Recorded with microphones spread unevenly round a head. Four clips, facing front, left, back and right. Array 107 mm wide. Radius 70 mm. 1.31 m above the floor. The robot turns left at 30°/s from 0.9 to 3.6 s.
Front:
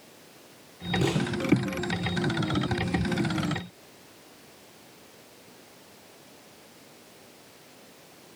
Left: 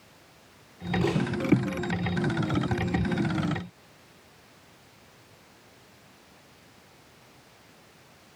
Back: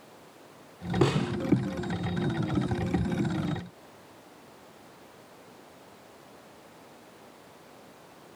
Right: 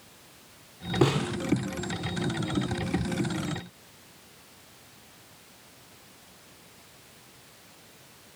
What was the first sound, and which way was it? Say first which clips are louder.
A snare drum: right 3 dB, back 2 dB; 125° right.